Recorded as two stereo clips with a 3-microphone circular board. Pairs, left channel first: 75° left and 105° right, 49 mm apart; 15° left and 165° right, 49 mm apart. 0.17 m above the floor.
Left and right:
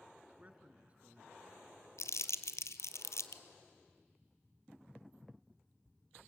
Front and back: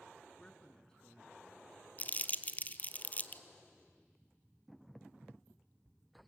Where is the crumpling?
70° left, 0.8 m.